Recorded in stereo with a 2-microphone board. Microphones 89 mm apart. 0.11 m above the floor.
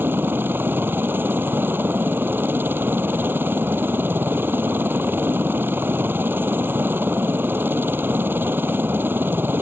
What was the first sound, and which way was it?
A helicopter, 25° right (ahead or behind).